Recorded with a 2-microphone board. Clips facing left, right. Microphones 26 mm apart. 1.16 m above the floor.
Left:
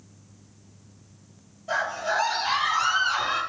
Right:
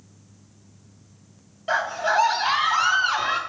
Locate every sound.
1.7 s a scream: 75° right (ahead or behind), 3 m